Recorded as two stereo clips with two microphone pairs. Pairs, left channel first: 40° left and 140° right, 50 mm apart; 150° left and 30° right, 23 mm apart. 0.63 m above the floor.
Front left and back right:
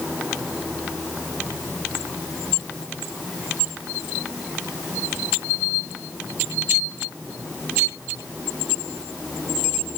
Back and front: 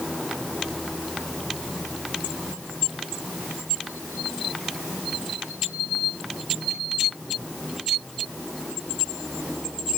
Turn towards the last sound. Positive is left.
No sound to turn to.